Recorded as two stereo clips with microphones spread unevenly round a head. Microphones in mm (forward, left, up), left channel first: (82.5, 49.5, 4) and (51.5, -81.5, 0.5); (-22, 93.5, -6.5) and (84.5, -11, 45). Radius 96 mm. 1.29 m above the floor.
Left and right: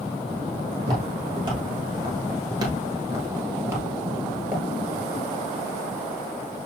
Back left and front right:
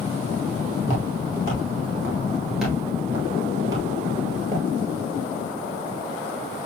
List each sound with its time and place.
0.8 s footsteps: 150° right, 1.7 m; by 4.7 s 30° right, 1.9 m